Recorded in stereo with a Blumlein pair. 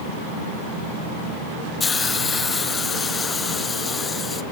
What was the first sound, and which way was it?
A hiss, 15° left.